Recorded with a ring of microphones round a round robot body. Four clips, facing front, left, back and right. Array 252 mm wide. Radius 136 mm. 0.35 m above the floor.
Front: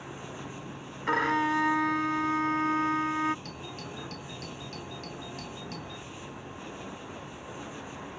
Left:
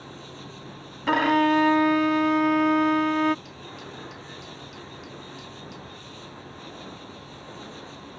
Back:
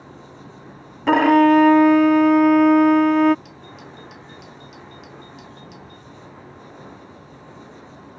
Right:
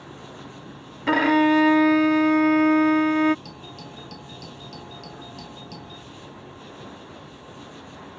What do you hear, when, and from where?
0.0 s an insect: 15° left
1.1 s a violin: 165° right
3.5 s a doorbell: 60° right